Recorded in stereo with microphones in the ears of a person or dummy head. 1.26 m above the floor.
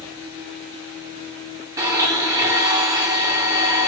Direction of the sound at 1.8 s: 15° right (ahead or behind).